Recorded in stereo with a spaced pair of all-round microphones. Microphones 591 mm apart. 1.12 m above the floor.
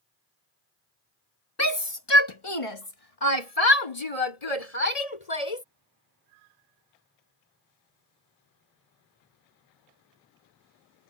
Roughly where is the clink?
I don't hear a clink.